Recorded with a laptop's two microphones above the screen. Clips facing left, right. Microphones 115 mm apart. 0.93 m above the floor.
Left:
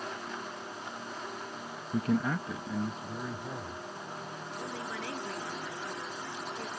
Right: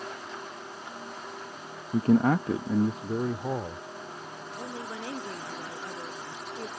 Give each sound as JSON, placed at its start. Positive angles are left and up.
{"t": 1.9, "sound": "a man speaking", "side_deg": -20}
{"t": 4.6, "sound": "a woman speaking", "side_deg": -25}